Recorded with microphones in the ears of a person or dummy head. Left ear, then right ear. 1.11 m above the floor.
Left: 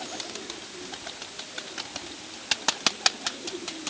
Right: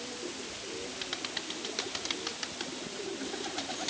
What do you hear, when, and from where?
Only background noise.